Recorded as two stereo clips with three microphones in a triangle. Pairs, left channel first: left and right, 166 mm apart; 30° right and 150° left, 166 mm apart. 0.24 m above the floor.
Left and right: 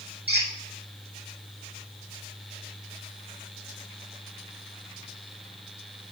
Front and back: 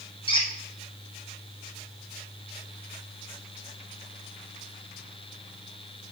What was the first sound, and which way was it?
A squeak, 90° right.